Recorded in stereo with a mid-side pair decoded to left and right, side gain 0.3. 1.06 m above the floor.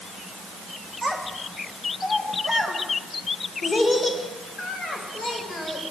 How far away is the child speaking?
About 2.5 m.